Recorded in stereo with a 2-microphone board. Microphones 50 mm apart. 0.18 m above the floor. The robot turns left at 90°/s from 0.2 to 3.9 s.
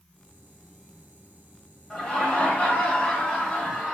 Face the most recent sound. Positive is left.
turn(degrees=-15)  # may be behind; listen again after turning